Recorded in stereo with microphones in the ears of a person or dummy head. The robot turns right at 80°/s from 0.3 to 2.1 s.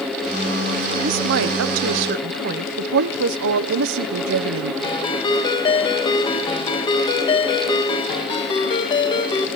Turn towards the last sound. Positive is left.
turn(degrees=20)  # may be behind; listen again after turning